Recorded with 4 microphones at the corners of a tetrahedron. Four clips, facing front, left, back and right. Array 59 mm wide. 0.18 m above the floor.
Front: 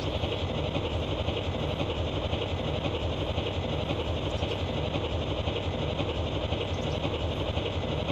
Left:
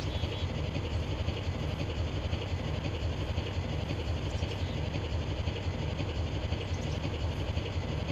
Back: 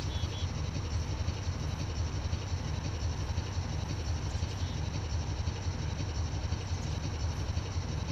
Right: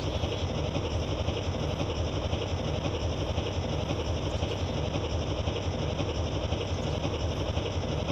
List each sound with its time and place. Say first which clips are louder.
0.0 s an engine running: right 5 dB, front 9 dB; 25° right